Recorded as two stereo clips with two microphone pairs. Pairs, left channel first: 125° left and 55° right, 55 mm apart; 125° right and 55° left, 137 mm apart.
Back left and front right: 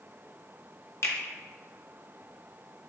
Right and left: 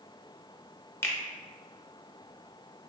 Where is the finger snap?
160° left, 0.6 m.